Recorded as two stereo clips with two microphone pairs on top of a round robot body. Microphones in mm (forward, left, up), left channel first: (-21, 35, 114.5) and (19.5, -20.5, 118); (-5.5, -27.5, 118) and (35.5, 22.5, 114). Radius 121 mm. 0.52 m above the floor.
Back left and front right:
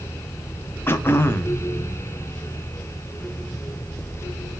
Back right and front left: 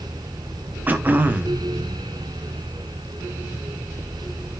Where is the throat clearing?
95° left, 1.0 m.